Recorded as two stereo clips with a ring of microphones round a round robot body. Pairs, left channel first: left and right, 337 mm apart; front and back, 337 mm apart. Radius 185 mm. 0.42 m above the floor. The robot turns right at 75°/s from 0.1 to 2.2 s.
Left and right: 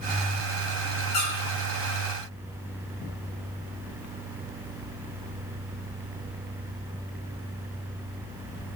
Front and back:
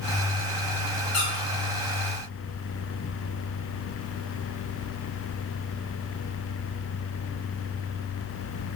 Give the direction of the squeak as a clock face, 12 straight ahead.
10 o'clock.